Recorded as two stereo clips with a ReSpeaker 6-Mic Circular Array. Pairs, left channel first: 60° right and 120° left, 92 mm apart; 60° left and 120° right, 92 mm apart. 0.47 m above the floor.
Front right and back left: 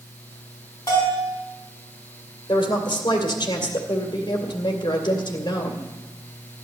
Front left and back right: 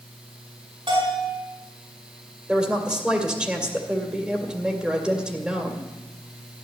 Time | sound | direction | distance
0.9 | a bell | 110° right | 5.5 m
2.5 | a woman speaking | 45° right | 2.5 m